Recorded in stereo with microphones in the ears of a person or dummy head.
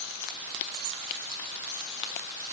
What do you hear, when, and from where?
Only background noise.